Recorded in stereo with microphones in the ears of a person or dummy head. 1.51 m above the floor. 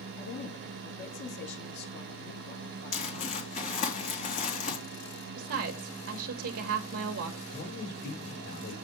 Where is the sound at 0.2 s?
60° left (ahead or behind), 1.4 m.